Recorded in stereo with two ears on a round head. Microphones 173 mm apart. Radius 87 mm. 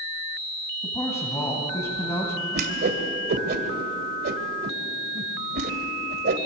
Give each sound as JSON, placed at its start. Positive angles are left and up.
{"t": 0.8, "sound": "a man speaking", "side_deg": 15, "distance_m": 2.5}
{"t": 2.5, "sound": "a whoosh", "side_deg": -55, "distance_m": 2.0}